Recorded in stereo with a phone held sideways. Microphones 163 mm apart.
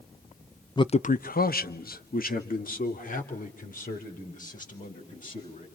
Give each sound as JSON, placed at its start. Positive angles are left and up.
{"t": 0.8, "sound": "a man speaking", "side_deg": 25, "distance_m": 0.6}